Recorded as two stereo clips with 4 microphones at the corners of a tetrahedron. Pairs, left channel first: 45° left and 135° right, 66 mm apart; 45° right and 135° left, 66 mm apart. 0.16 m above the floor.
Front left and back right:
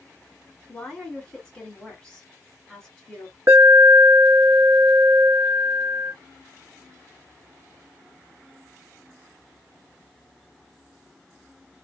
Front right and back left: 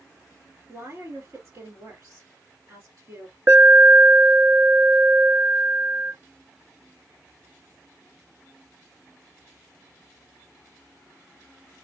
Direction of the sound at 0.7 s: 110° left.